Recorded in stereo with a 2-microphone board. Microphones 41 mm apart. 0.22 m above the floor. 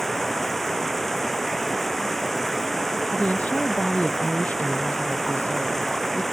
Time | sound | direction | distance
0.0 | running water | 5° left (ahead or behind) | ?
3.1 | a woman speaking | 40° left (ahead or behind) | ?